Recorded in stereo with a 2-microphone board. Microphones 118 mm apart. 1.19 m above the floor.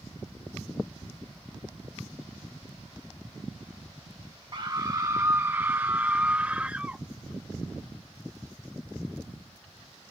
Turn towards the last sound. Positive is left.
turn(degrees=-10)  # may be behind; listen again after turning